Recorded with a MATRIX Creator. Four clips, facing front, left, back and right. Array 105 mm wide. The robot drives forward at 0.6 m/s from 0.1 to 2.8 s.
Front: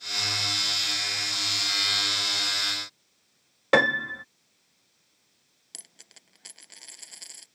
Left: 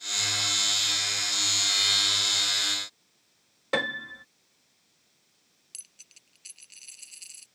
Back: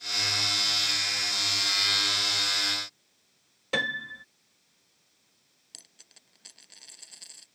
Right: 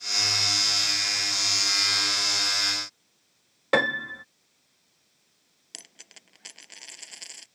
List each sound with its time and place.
3.7 s a piano: 25° right
5.7 s a dropped coin: 70° right